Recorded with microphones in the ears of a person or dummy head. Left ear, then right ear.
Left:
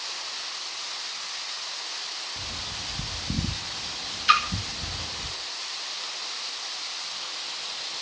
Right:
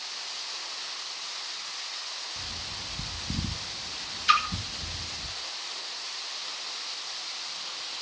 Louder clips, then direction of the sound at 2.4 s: Left 2 dB; 20° left (ahead or behind).